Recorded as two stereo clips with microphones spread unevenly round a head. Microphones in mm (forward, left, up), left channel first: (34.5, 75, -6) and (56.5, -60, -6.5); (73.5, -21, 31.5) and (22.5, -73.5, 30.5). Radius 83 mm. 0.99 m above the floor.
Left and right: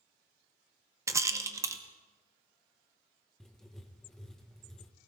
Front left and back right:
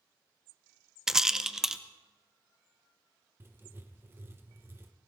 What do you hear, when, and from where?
1.1 s a rattle: 65° right, 0.8 m
3.4 s writing: 175° right, 0.9 m